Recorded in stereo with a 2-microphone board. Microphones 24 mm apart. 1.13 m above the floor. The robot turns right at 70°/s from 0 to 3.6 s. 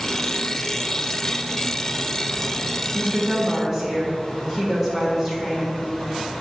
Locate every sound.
2.9 s a woman speaking: 70° right, 2 m; by 5.8 s 20° right, 2 m